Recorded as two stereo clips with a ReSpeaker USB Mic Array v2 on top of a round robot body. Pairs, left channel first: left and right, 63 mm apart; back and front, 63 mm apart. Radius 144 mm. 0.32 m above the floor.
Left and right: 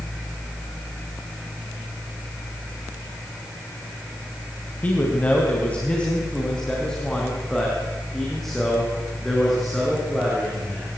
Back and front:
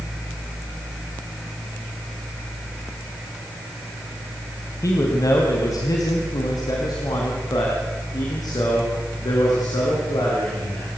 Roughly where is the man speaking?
Behind left.